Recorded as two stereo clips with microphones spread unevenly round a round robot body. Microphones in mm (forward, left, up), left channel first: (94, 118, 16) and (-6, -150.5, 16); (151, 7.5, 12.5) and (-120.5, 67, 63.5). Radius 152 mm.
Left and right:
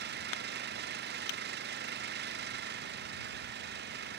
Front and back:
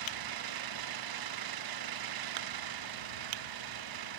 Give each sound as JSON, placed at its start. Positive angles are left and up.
{"t": 0.0, "sound": "an engine running", "azimuth_deg": -170}